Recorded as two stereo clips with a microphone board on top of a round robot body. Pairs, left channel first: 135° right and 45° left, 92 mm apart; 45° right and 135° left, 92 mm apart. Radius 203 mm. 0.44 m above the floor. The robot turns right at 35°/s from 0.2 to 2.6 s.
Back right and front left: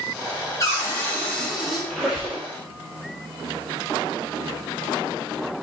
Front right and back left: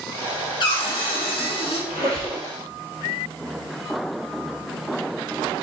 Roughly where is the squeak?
Ahead right.